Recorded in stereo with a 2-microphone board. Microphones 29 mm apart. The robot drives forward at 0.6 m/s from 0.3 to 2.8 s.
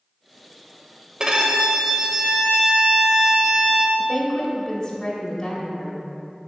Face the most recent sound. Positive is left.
turn(degrees=25)  # may be behind; listen again after turning